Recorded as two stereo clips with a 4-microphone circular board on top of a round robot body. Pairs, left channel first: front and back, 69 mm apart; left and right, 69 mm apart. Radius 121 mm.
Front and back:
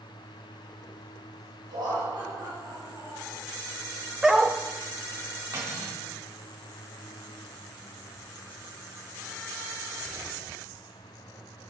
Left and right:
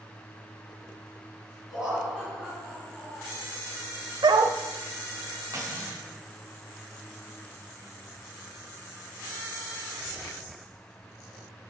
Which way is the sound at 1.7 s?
170° right.